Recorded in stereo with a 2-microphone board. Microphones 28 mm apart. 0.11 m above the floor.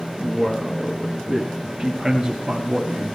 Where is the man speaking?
25° left (ahead or behind), 1.6 m; by 3.1 s 20° right (ahead or behind), 2.5 m.